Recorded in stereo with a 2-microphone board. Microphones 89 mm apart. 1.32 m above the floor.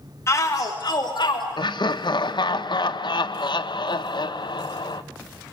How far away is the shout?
About 1.5 m.